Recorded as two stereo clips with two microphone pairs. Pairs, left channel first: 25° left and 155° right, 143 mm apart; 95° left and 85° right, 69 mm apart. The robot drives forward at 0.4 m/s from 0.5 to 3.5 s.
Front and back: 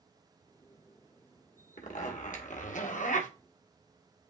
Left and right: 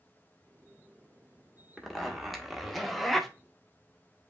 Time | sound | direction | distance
1.8 | a zipper | straight ahead | 1.2 m